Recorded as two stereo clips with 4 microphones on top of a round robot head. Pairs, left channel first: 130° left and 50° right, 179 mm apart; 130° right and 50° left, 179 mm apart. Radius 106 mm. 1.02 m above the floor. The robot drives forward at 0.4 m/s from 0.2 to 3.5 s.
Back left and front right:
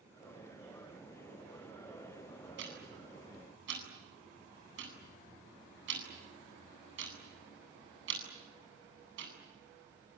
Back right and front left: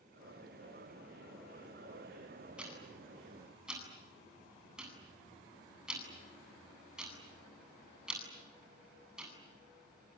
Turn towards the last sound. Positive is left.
turn(degrees=-35)